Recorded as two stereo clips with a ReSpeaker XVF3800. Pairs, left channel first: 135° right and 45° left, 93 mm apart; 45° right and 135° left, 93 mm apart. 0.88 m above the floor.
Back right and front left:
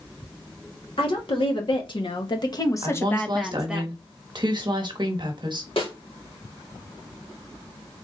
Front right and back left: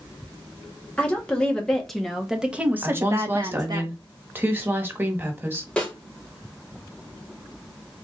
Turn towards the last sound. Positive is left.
turn(degrees=-125)